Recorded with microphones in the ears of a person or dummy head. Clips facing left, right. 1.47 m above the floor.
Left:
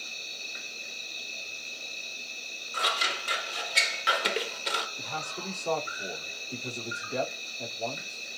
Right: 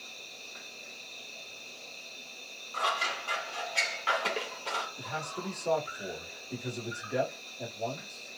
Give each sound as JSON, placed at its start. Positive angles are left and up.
{"t": 0.0, "sound": "an insect", "side_deg": 15, "distance_m": 0.9}
{"t": 2.7, "sound": "scissors", "side_deg": 25, "distance_m": 0.6}
{"t": 5.0, "sound": "a man speaking", "side_deg": -15, "distance_m": 1.5}